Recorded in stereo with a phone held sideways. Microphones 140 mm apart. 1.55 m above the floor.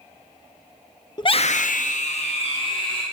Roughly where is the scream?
Left.